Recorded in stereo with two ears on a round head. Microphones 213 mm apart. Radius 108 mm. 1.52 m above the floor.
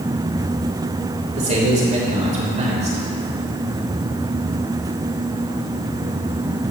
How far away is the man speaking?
About 5 m.